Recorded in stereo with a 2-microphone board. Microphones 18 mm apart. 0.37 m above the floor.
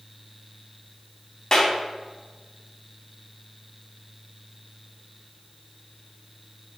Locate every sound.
1.5 s a clap: 45° left (ahead or behind), 3 m